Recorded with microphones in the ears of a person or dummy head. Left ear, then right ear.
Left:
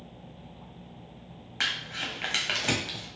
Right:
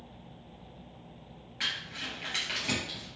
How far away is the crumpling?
About 0.6 m.